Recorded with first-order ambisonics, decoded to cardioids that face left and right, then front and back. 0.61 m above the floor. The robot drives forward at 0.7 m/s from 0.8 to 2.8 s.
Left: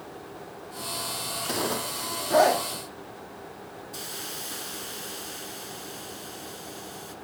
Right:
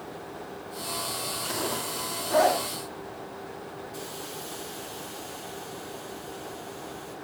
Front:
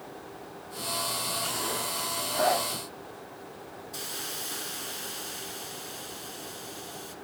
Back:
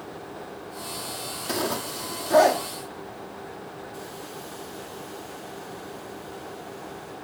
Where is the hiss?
40° left, 1.8 m.